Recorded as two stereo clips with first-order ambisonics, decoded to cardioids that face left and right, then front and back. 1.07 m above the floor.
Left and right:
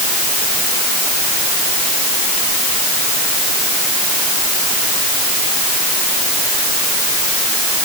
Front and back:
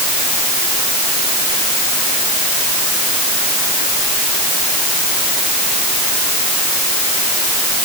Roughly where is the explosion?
No explosion in this recording.